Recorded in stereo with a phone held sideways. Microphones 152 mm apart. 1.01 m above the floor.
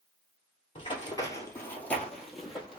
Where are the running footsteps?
35° left (ahead or behind), 1.4 m; by 2.8 s 5° right (ahead or behind), 1.7 m.